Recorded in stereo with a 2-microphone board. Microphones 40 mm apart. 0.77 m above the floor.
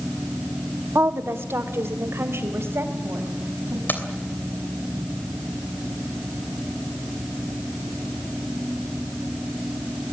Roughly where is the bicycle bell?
No bicycle bell in this recording.